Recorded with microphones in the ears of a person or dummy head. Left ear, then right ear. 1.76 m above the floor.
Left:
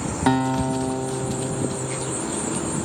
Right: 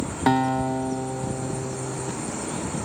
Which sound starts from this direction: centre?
A guitar, at 0.3 s.